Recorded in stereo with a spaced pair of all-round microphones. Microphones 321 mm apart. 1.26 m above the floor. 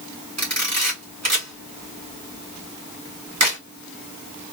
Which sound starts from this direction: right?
A camera shutter, at 0.4 s.